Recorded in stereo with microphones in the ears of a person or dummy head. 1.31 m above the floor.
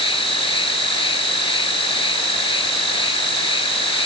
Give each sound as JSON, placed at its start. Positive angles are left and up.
{"t": 0.0, "sound": "an insect", "side_deg": 25}